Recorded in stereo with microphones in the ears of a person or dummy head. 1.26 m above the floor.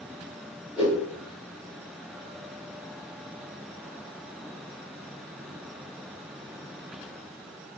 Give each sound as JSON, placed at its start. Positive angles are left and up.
{"t": 0.8, "sound": "a whoosh", "side_deg": 0, "distance_m": 1.3}